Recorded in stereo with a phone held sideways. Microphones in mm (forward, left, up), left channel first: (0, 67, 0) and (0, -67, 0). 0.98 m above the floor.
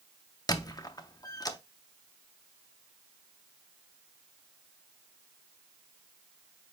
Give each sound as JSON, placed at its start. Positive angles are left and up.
{"t": 0.5, "sound": "a squeak", "side_deg": 30, "distance_m": 0.5}